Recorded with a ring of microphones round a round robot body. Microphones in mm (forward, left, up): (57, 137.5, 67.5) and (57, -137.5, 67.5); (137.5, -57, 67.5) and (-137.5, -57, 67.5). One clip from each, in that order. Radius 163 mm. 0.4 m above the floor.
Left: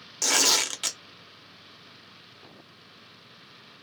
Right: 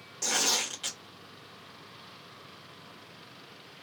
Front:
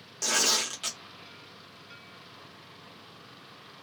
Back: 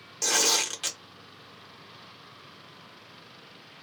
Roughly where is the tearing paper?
Left.